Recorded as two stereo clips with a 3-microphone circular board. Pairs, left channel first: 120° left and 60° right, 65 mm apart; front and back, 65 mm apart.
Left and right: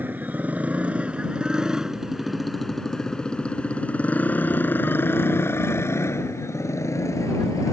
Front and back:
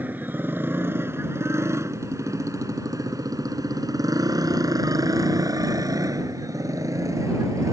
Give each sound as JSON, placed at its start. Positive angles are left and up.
{"t": 0.0, "sound": "a motorcycle", "azimuth_deg": -120}